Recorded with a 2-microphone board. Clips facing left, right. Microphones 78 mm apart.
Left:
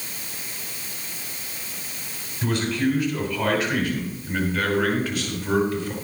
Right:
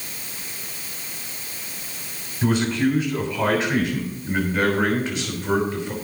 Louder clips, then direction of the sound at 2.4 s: Right 3 dB; 25° right (ahead or behind).